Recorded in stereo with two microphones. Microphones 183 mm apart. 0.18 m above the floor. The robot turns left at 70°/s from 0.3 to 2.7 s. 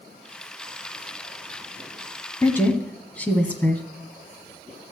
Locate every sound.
2.4 s a woman speaking: 15° left (ahead or behind), 1.3 m; by 3.8 s 10° left (ahead or behind), 1.3 m